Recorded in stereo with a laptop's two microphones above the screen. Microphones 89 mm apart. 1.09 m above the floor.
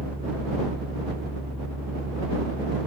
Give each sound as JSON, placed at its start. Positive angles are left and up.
{"t": 0.0, "sound": "a fan", "side_deg": -25}